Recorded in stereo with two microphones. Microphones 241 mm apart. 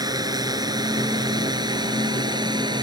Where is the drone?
15° right (ahead or behind).